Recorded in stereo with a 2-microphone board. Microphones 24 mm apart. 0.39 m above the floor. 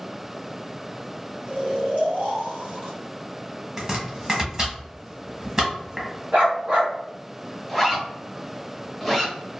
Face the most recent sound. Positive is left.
turn(degrees=-5)  # may be behind; listen again after turning